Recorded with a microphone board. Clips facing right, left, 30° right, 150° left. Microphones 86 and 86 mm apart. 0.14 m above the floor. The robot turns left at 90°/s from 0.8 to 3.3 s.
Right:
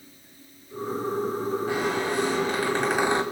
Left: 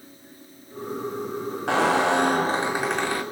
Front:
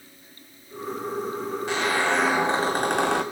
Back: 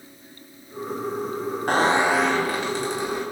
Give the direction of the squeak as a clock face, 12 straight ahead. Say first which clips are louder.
Left 11 dB, back 5 dB; 8 o'clock.